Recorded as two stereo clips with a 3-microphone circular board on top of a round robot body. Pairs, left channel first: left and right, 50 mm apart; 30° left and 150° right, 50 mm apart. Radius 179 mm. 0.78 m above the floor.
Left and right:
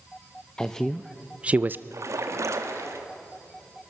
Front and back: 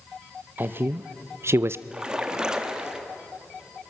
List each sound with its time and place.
0.6 s a man speaking: 165° left, 0.8 m; by 1.8 s 125° right, 0.6 m
1.9 s a splash: 75° right, 1.6 m